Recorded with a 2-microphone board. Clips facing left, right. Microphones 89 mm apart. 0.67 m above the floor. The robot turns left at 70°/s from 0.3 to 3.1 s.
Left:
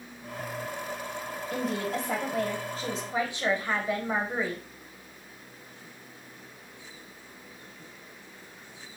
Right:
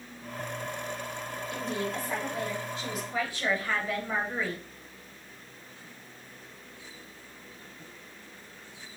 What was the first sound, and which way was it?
A woman speaking, 130° left.